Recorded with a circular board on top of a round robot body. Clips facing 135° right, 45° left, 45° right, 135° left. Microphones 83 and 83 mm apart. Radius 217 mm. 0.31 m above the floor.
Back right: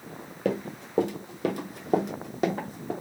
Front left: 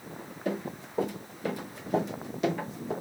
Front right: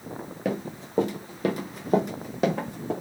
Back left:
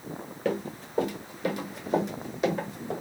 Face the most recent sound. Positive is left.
turn(degrees=-85)